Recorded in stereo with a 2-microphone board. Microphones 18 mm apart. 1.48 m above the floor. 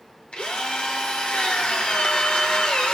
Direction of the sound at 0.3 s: 80° left.